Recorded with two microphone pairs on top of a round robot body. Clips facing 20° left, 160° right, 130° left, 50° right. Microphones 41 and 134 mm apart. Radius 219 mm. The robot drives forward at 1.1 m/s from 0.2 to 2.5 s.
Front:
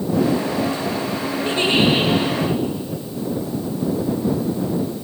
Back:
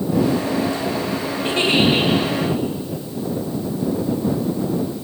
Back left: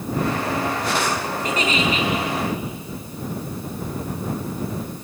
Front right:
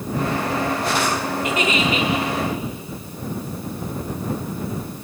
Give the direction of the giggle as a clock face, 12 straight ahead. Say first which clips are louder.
Even, even; 6 o'clock.